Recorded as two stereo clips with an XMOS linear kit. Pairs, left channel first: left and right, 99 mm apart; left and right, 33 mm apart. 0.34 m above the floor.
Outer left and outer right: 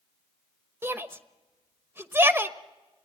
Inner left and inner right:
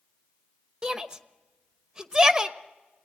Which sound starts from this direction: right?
A shout, at 0.8 s.